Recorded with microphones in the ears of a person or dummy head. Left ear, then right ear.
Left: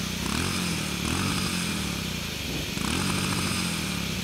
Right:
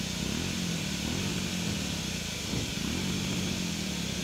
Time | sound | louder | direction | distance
0.0 | a motorcycle | left 4 dB | 55° left (ahead or behind) | ?